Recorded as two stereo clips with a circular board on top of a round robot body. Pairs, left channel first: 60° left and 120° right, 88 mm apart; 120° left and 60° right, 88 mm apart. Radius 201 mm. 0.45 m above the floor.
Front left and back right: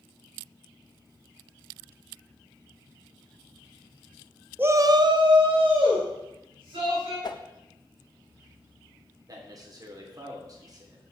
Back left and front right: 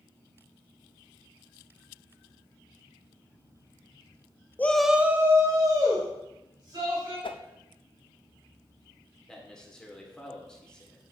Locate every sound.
4.6 s a shout: straight behind, 0.9 m; by 7.1 s 100° right, 3.5 m
7.2 s a whoosh: 100° left, 0.5 m
9.3 s a man speaking: 160° right, 1.9 m